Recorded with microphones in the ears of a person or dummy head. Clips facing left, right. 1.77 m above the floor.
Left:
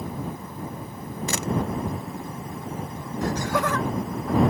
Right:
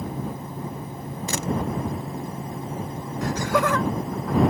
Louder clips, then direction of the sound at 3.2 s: Right 2 dB; 60° right (ahead or behind).